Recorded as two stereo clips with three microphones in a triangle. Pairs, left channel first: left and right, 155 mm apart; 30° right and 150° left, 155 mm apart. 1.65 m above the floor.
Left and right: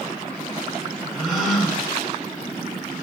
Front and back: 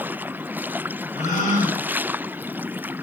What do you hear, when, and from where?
1.1 s a gasp: straight ahead, 2.5 m